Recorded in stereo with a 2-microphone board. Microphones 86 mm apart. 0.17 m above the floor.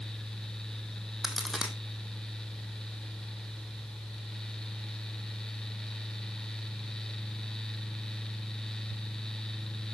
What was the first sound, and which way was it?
A crack, 5° right (ahead or behind).